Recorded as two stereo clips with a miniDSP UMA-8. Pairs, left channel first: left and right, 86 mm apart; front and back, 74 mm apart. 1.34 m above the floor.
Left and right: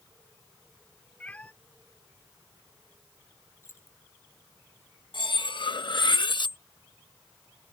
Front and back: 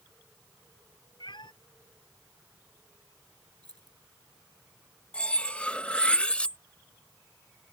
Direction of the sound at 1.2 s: 15° left.